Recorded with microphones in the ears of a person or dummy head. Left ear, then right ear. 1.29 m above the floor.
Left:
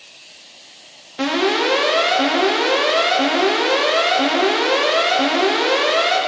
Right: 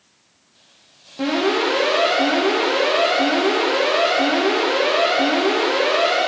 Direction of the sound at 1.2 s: 60° left (ahead or behind).